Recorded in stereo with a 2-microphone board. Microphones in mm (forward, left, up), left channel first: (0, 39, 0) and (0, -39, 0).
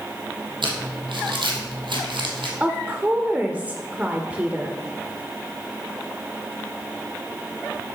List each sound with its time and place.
0.6 s crumpling: 85° right, 2 m
2.6 s a woman speaking: 20° right (ahead or behind), 0.9 m